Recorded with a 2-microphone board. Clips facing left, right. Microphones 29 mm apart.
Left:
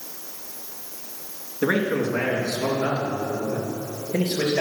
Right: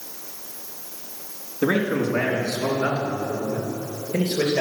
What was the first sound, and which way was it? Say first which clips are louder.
A man speaking: right 1 dB; 5° right (ahead or behind).